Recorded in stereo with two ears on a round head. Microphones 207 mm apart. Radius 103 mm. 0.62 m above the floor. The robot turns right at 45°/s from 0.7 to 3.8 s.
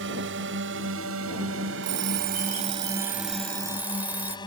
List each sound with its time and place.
0.0 s a drone: 55° right (ahead or behind); by 4.5 s 20° left (ahead or behind)
1.8 s an alarm clock: 100° right; by 4.4 s 10° right